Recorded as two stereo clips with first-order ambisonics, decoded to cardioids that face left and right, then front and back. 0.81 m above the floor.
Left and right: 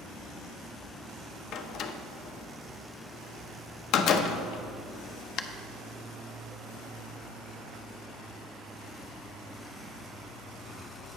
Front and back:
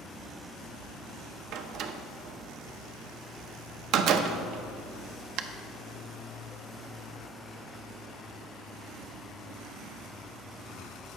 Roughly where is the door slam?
Behind left.